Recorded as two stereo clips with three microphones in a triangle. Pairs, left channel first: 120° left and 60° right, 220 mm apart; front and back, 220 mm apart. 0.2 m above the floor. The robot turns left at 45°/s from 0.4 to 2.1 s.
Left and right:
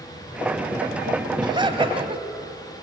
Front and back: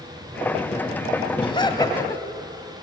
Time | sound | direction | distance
1.4 | laughter | 25° right | 1.2 m